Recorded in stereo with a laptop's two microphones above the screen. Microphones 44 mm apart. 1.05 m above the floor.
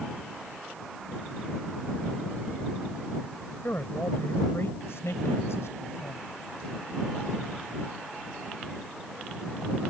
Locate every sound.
3.6 s a man speaking: 50° left (ahead or behind); by 6.2 s 85° left